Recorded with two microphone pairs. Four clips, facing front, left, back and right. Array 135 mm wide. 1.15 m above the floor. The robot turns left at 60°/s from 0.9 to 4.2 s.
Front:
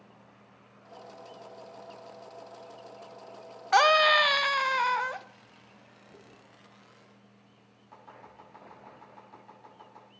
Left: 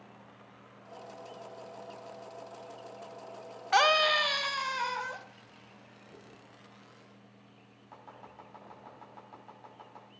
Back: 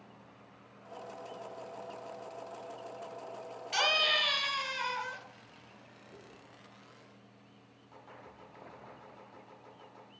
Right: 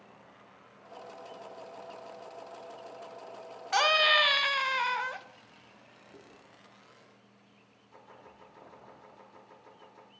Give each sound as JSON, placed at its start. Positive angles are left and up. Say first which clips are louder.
{"t": 3.7, "sound": "a scream", "louder": "left 1 dB, front 12 dB", "azimuth_deg": 20, "distance_m": 0.8}
{"t": 6.1, "sound": "chewing", "louder": "even, even", "azimuth_deg": 30, "distance_m": 3.5}
{"t": 7.9, "sound": "chopping", "louder": "left 3 dB, front 3 dB", "azimuth_deg": 75, "distance_m": 5.5}